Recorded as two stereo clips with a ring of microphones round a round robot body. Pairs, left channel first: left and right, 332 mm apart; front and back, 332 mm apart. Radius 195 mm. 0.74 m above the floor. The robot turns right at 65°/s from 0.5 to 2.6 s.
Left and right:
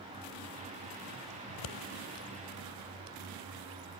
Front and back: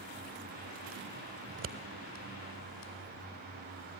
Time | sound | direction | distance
1.5 | scissors | 120° left | 1.0 m